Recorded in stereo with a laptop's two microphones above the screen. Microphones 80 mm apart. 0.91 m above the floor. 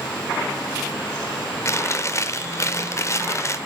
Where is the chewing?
35° left (ahead or behind), 0.7 m.